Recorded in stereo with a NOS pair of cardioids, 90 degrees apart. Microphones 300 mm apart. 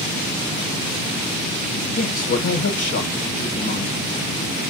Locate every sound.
1.9 s a man speaking: 55° left, 1.1 m